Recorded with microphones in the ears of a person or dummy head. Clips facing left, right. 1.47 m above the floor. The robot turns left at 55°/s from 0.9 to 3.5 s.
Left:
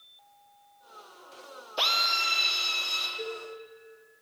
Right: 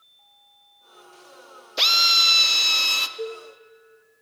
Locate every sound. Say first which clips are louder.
1.8 s a drill: right 2 dB; 25° right, 0.5 m; by 3.1 s 100° right, 0.5 m
3.2 s a cowbell: right 5 dB; 40° right (ahead or behind), 1.6 m; by 3.4 s 45° right (ahead or behind), 1.6 m